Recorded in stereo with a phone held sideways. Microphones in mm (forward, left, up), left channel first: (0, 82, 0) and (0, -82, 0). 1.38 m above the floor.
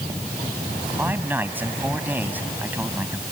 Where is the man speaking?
10° right (ahead or behind).